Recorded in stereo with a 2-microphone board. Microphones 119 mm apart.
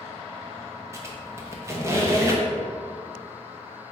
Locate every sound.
0.9 s a squeak: 20° right (ahead or behind), 0.7 m